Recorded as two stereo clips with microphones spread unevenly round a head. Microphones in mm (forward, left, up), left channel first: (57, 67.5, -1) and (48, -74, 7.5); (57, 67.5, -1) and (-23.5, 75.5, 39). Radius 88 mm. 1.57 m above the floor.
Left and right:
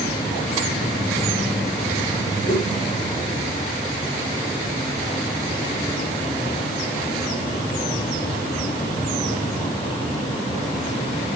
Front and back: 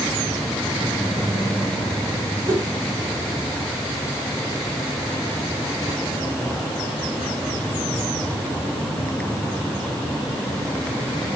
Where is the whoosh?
125° left, 5 m.